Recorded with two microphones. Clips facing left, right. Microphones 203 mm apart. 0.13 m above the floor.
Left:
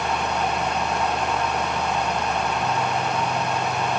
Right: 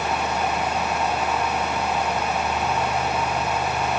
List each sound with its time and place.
Only background noise.